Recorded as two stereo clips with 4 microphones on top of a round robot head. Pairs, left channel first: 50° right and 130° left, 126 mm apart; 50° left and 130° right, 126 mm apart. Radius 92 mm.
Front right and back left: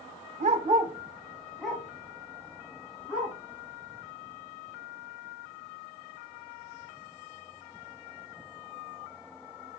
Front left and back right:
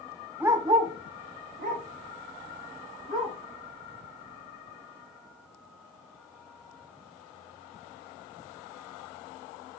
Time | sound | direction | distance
0.4 | a dog barking | 150° left | 0.5 m